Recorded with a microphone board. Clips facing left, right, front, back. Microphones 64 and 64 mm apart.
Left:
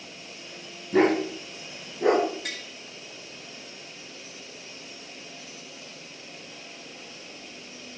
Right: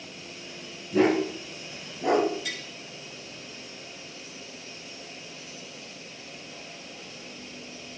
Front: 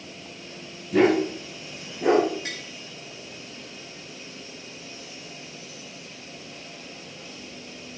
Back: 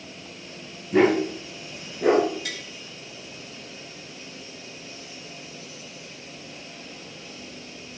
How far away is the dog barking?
About 6.5 m.